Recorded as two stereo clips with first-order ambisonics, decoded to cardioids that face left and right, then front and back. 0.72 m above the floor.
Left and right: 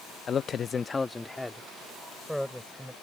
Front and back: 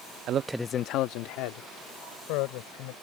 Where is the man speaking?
150° left; by 2.9 s straight ahead.